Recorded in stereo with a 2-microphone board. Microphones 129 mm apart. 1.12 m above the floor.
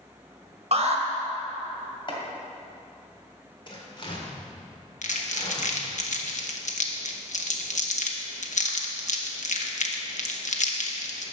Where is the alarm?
50° right (ahead or behind), 1.4 m.